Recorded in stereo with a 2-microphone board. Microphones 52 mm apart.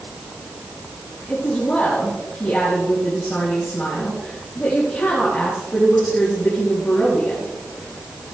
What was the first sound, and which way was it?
A woman speaking, 20° left (ahead or behind).